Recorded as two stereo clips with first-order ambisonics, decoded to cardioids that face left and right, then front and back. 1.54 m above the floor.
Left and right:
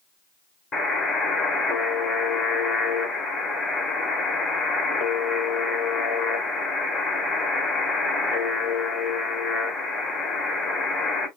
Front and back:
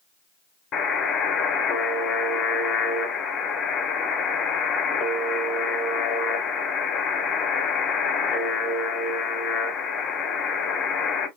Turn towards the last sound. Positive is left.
turn(degrees=30)